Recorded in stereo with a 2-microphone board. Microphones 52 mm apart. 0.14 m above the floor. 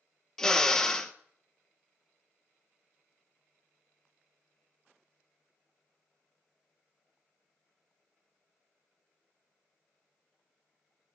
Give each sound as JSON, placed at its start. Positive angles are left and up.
{"t": 0.4, "sound": "a drill", "side_deg": 10, "distance_m": 1.1}